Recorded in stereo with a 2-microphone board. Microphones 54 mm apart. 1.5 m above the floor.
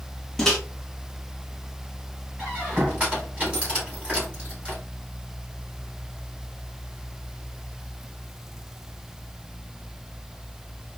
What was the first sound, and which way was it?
A microwave, 10° left (ahead or behind).